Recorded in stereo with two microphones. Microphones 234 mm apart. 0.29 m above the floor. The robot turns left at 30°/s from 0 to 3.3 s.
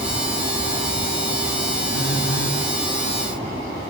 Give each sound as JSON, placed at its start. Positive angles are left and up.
{"t": 1.9, "sound": "a phone buzzing", "side_deg": 70, "distance_m": 2.5}